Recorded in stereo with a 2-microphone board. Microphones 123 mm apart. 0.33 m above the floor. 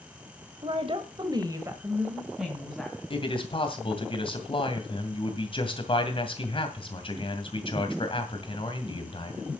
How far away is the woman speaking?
About 1.7 m.